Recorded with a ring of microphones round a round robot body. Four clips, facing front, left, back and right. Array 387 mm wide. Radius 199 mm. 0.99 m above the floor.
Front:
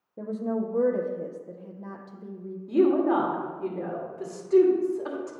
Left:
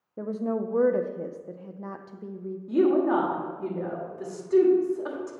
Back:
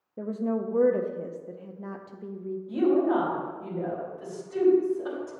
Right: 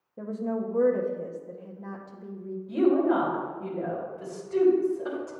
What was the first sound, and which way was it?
A woman speaking, 110° left.